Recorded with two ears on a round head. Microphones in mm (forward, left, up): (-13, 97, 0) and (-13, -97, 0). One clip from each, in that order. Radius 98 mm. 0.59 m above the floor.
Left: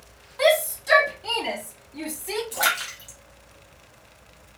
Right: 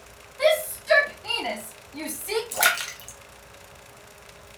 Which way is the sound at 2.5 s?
20° right (ahead or behind).